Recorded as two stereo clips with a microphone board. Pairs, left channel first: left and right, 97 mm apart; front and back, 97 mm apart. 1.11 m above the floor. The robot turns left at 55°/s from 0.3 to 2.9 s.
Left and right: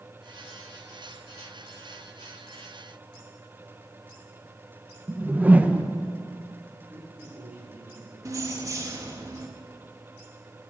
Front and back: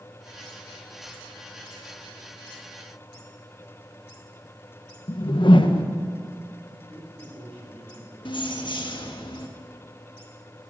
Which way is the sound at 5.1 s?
20° right.